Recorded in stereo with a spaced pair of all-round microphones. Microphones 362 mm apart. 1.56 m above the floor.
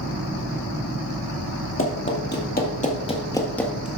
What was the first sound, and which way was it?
Running footsteps, 35° left (ahead or behind).